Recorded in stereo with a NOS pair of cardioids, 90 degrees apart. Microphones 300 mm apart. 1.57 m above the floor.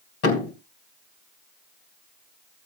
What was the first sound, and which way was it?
A thud, 60° left.